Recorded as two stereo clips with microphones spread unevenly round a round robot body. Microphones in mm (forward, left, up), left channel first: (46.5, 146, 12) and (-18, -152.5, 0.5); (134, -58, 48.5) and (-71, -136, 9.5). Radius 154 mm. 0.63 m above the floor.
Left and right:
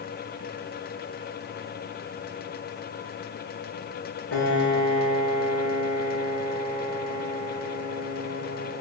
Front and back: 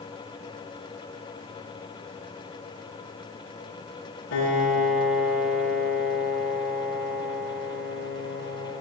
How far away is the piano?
About 4 m.